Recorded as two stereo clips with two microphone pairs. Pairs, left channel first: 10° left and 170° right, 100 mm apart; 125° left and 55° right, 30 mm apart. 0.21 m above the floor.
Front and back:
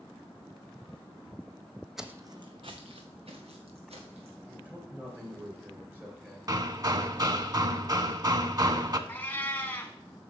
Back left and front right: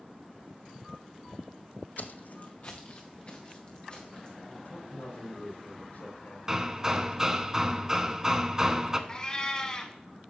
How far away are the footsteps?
About 0.6 m.